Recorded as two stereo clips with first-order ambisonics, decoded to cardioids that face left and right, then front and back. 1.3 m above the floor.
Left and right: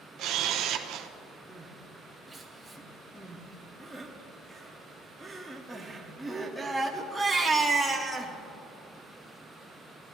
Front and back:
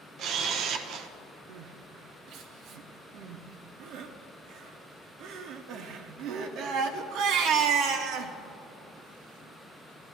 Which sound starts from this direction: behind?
Crying, at 1.5 s.